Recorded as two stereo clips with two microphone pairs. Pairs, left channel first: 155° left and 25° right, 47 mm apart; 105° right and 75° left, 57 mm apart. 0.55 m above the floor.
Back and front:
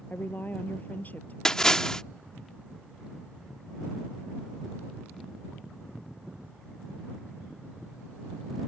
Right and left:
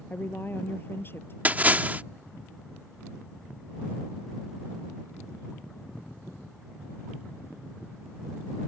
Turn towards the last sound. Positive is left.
turn(degrees=85)